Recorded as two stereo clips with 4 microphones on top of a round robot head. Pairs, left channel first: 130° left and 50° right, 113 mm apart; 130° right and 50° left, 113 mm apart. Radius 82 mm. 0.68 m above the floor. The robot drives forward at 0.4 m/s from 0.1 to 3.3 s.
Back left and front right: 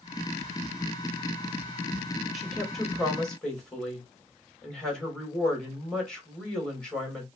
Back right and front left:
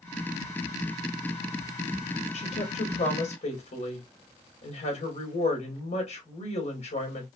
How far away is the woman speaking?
About 2 m.